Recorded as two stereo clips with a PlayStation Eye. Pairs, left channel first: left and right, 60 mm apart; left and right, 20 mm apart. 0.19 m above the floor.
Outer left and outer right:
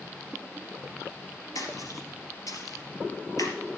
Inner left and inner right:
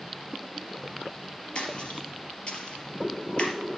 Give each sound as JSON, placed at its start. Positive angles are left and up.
{"t": 1.6, "sound": "a splash", "side_deg": 70, "distance_m": 3.0}